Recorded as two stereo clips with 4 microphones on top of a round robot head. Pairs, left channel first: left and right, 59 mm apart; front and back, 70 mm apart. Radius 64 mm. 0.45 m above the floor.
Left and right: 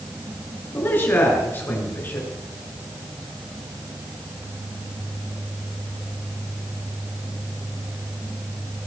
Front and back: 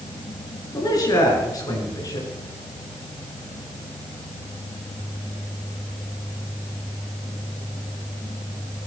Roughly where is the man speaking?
Ahead left.